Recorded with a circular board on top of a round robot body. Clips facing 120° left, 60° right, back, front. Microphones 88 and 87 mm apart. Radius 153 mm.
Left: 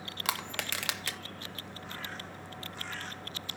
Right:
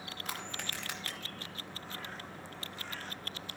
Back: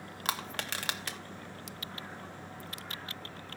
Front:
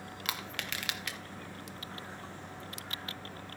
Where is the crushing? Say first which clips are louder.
Left 7 dB, back 4 dB; 125° left, 0.5 m.